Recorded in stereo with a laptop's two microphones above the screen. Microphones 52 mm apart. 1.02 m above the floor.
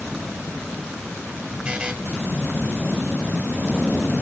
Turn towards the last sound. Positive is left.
turn(degrees=-20)  # may be behind; listen again after turning